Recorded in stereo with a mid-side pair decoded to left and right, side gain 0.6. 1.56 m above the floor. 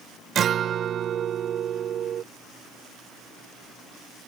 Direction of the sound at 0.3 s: 45° right.